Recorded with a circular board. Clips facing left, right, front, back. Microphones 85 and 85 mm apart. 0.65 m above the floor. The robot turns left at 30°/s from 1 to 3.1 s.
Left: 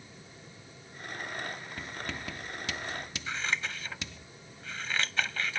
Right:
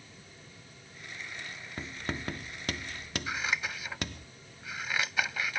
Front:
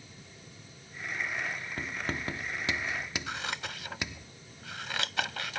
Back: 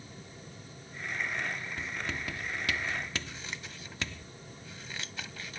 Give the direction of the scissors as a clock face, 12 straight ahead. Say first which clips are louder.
Even, front 7 dB; 12 o'clock.